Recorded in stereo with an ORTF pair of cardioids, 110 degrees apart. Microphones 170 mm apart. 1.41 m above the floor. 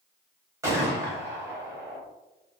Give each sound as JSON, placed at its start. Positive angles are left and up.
{"t": 0.6, "sound": "a gunshot", "azimuth_deg": -15, "distance_m": 1.0}